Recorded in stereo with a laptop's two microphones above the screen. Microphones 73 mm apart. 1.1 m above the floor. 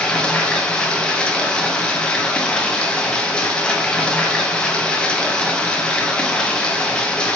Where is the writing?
No writing in this recording.